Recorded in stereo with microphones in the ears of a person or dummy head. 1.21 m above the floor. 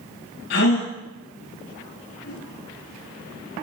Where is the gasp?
65° left (ahead or behind), 5 m.